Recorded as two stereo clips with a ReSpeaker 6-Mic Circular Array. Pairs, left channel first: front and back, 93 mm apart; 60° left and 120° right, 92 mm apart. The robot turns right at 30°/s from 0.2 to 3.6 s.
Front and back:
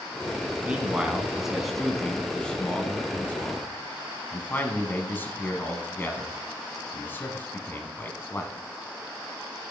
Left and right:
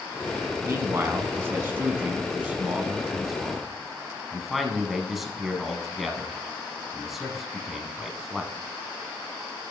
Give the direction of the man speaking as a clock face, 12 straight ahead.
4 o'clock.